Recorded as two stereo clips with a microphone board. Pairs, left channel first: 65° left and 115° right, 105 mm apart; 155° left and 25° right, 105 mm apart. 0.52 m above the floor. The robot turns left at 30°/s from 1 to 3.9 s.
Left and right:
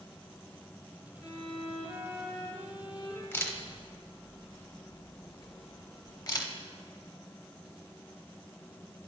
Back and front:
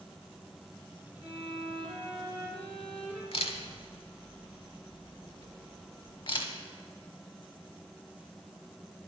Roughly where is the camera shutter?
Behind left.